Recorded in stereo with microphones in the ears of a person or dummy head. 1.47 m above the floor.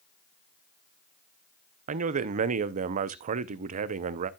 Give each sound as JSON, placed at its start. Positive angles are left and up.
{"t": 1.9, "sound": "a man speaking", "side_deg": -40, "distance_m": 0.6}